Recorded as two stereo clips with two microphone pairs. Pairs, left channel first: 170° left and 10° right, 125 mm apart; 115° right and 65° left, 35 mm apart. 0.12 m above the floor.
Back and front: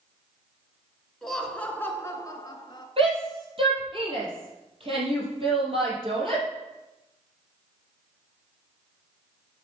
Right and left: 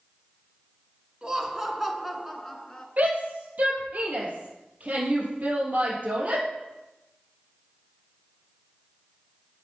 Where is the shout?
25° left, 4 m.